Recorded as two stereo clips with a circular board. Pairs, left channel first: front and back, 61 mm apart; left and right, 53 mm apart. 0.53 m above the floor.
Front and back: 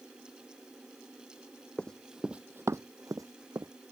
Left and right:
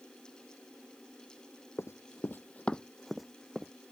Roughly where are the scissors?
I don't hear scissors.